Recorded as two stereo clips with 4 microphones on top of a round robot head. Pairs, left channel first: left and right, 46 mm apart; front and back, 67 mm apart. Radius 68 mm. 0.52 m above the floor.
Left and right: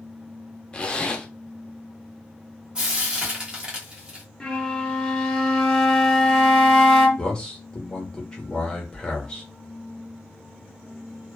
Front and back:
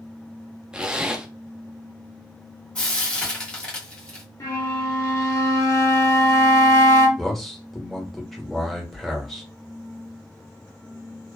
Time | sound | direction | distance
0.7 | a zipper | 120° left | 0.6 m
2.8 | frying | 50° right | 1.4 m
4.4 | a flute | 15° left | 1.3 m
7.2 | a man speaking | 80° left | 1.2 m